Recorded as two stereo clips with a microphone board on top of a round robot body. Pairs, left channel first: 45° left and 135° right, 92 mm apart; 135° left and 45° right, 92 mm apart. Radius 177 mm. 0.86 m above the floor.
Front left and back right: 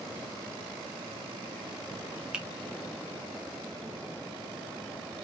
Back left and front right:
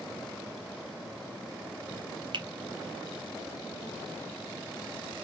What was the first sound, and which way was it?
A finger snap, 55° right.